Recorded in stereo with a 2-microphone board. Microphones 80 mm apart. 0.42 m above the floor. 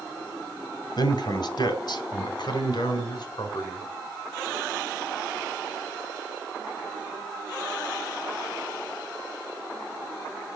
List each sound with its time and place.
1.0 s a man speaking: 60° left (ahead or behind), 2.5 m; by 3.9 s 55° left (ahead or behind), 5 m